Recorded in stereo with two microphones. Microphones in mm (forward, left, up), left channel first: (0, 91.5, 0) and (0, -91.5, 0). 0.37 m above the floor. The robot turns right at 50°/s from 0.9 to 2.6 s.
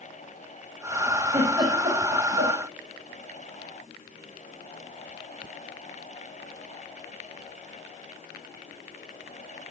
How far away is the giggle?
About 6.5 m.